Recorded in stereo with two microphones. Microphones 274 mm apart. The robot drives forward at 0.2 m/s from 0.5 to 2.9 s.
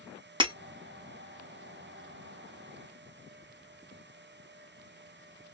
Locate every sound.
0.4 s breaking glass: 20° right (ahead or behind), 0.5 m